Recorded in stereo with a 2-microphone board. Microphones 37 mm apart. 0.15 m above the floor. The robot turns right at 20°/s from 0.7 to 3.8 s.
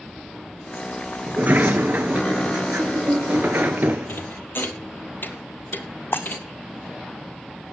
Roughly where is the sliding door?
Behind right.